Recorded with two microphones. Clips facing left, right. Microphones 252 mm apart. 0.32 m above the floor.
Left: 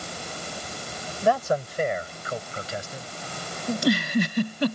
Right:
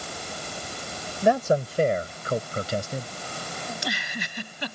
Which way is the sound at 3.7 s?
55° left (ahead or behind).